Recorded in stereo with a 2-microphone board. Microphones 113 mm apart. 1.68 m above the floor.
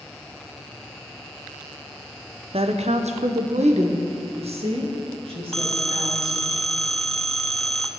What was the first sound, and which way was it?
A woman speaking, 60° right (ahead or behind).